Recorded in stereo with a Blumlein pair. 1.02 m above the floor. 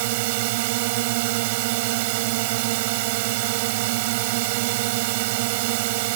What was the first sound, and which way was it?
A drone, 50° right.